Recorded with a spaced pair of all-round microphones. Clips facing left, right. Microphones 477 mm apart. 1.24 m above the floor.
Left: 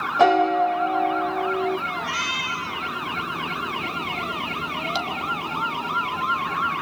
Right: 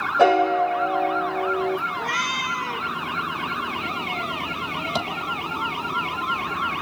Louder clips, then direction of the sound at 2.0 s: Right 1 dB; 30° left (ahead or behind).